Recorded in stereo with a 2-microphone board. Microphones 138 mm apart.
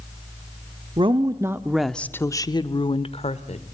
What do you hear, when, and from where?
1.0 s a woman speaking: 40° right (ahead or behind), 0.9 m; by 3.6 s 55° left (ahead or behind), 1.5 m